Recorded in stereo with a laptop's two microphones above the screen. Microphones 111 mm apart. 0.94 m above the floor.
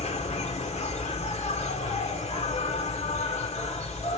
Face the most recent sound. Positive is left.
turn(degrees=85)